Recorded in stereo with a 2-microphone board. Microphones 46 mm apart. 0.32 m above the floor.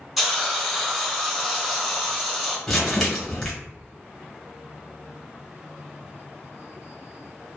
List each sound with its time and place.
0.2 s a hiss: centre (ahead or behind), 0.7 m
2.7 s crumpling: 5° left (ahead or behind), 1.3 m